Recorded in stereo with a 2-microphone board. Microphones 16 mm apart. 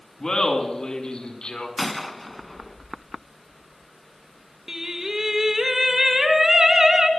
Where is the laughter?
35° left (ahead or behind), 5 m; by 1.7 s 60° left (ahead or behind), 4.5 m.